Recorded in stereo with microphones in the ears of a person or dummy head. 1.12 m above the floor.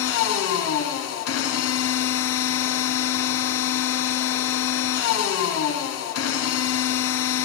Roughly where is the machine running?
Left.